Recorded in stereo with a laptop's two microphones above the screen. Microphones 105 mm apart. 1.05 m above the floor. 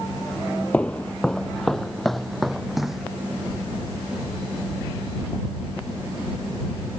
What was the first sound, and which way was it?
Footsteps, 10° left (ahead or behind).